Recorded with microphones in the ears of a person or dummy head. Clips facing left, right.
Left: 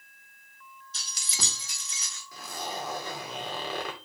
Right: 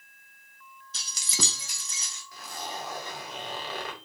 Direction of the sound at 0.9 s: 65° right (ahead or behind).